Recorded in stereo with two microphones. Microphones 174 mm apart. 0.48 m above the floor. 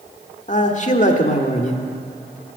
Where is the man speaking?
45° left (ahead or behind), 1.1 m.